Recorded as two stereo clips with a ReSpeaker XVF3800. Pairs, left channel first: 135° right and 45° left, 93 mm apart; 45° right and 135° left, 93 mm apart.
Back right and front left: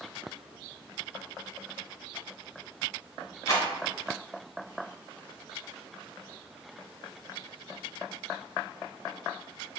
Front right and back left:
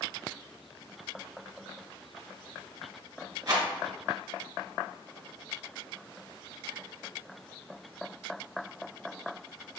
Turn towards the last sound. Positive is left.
turn(degrees=180)